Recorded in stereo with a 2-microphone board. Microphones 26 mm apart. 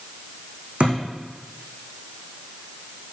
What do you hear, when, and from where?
0.8 s a thud: 50° right (ahead or behind), 4 m